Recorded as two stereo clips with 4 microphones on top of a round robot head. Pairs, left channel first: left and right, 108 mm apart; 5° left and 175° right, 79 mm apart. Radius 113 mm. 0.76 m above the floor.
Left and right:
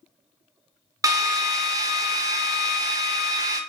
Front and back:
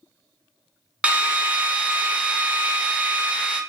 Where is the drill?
110° right, 0.7 m.